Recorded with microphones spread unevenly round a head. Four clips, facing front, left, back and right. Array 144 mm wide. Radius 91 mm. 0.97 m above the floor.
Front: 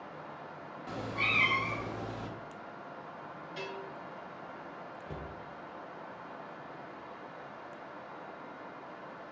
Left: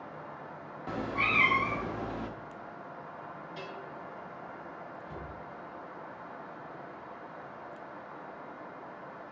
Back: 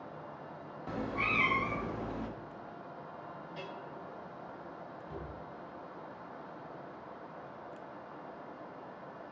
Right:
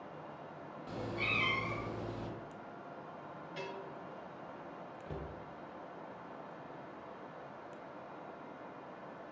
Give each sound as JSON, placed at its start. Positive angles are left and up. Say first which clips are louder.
{"t": 0.9, "sound": "a cat meowing", "louder": "left 8 dB, back 1 dB", "azimuth_deg": 85, "distance_m": 0.7}
{"t": 3.6, "sound": "a bell", "louder": "right 1 dB, front 5 dB", "azimuth_deg": -60, "distance_m": 2.5}
{"t": 5.1, "sound": "a cupboard door", "louder": "left 2 dB, front 1 dB", "azimuth_deg": -55, "distance_m": 1.5}